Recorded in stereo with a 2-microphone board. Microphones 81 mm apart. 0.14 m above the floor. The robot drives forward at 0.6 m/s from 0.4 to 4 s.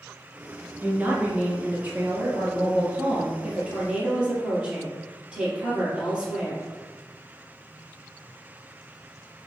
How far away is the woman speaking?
About 1.8 m.